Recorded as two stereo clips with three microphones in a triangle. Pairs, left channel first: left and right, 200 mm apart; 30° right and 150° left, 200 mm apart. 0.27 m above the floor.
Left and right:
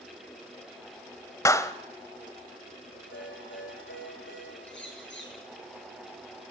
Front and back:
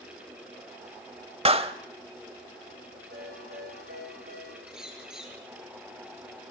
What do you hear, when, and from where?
1.4 s a clap: 145° left, 0.9 m
3.1 s a ringtone: 110° left, 9.5 m
4.7 s a bird: 65° left, 5 m